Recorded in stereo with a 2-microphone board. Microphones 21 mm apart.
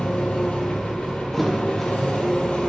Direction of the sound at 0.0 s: 80° left.